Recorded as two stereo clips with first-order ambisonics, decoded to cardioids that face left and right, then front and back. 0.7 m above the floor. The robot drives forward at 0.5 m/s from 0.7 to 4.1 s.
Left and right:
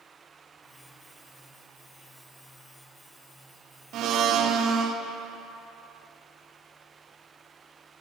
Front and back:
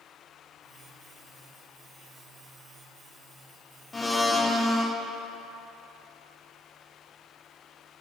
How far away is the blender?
About 0.6 m.